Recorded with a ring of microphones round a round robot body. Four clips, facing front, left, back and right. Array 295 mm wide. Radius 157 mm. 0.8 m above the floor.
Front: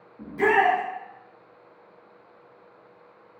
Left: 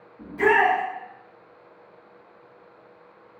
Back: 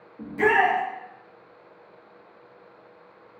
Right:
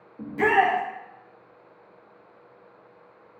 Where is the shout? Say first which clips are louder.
Left 1 dB, even; 110° right, 0.9 m.